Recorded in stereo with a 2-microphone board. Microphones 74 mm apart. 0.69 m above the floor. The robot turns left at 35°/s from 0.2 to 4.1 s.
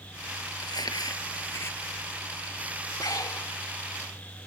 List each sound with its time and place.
0.6 s crumpling: 75° left; by 1.8 s 30° left
3.0 s breathing: 60° left (ahead or behind); by 3.5 s 50° left (ahead or behind)